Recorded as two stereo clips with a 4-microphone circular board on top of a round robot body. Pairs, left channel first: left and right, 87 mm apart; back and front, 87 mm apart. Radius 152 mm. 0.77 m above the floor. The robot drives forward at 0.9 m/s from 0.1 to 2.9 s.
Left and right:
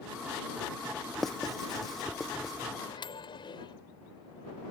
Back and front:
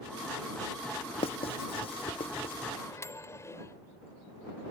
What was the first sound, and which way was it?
Writing, 175° left.